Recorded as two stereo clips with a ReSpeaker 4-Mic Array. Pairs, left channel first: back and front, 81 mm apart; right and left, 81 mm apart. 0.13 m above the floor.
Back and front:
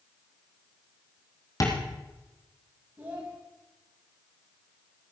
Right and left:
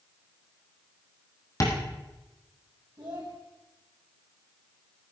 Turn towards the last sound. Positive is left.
turn(degrees=55)